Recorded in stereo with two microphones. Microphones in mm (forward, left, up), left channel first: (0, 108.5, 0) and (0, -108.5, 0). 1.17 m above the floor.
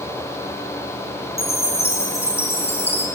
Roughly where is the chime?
Left.